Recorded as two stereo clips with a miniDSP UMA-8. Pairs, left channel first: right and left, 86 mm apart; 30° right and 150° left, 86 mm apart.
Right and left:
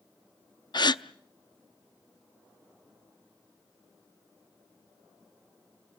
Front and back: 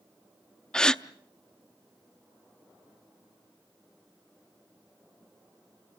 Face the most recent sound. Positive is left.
turn(degrees=-110)